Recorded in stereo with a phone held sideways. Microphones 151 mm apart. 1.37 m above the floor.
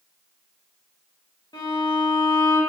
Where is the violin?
25° left (ahead or behind), 1.2 m.